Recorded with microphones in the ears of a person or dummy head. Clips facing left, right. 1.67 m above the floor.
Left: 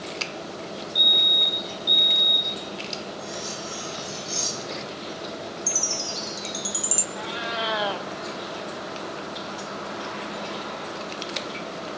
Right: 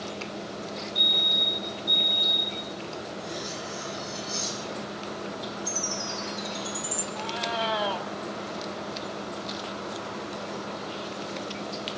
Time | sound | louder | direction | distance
0.9 | a fire alarm | left 1 dB | 70° left (ahead or behind) | 6.5 m
3.2 | cutlery clinking | left 1 dB | 60° left (ahead or behind) | 7.5 m
5.7 | a chime | left 1 dB | 50° left (ahead or behind) | 1.6 m
7.2 | a cat meowing | right 1 dB | 25° left (ahead or behind) | 1.8 m